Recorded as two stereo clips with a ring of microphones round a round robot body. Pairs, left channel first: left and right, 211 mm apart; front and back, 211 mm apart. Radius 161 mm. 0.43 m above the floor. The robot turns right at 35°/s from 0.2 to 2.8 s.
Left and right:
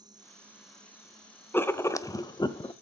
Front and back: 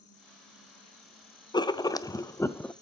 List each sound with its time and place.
0.0 s an insect: 20° right, 1.7 m; by 2.8 s 75° left, 1.7 m
1.5 s writing: 25° left, 0.6 m; by 2.7 s 65° left, 0.6 m